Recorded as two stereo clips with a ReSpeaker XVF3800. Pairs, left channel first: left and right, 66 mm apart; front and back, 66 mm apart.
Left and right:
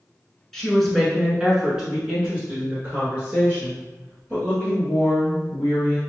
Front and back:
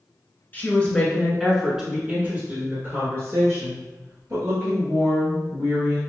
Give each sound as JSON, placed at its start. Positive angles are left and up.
{"t": 0.5, "sound": "a woman speaking", "azimuth_deg": 10, "distance_m": 1.3}